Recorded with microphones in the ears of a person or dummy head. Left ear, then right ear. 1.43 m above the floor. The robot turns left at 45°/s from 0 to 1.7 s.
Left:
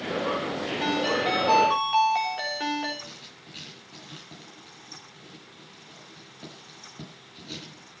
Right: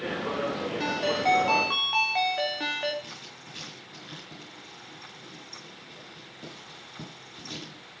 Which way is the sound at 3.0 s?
5° right (ahead or behind).